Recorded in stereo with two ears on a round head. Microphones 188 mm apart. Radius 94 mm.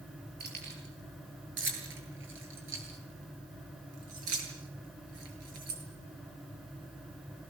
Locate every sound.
0.4 s keys jangling: 50° right (ahead or behind), 9.5 m; by 5.8 s 85° right, 8.5 m